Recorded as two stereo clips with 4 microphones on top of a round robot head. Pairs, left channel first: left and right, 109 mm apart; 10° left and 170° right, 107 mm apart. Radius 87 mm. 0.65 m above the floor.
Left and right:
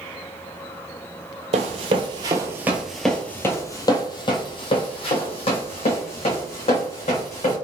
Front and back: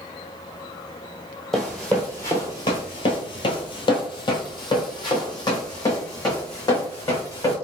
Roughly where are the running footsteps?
Right.